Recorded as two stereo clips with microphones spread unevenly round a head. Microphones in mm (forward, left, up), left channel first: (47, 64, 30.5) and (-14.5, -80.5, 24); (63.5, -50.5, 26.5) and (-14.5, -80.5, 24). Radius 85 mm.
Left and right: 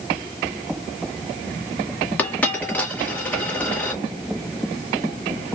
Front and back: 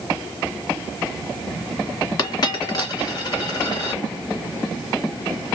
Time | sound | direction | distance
2.2 | a dropped coin | 10° right | 1.6 m